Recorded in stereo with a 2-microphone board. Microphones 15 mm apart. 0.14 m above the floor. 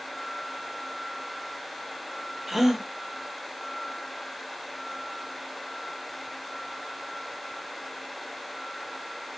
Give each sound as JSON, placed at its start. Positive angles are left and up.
{"t": 2.5, "sound": "a gasp", "side_deg": -15, "distance_m": 0.8}